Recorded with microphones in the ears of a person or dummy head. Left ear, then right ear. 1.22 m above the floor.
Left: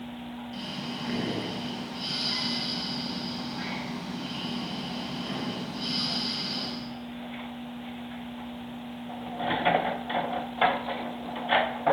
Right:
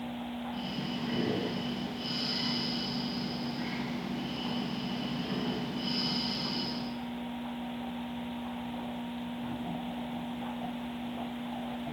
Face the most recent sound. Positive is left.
turn(degrees=40)  # may be behind; listen again after turning